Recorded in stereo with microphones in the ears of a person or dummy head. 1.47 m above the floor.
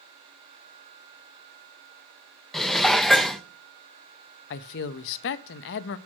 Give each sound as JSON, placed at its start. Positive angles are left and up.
{"t": 2.5, "sound": "dishes clattering", "side_deg": 5, "distance_m": 0.6}
{"t": 4.5, "sound": "a man speaking", "side_deg": 60, "distance_m": 0.6}